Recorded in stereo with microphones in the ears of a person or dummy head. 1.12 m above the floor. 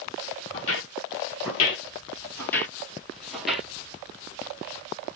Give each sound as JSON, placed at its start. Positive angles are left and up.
{"t": 0.5, "sound": "footsteps", "side_deg": 40, "distance_m": 1.5}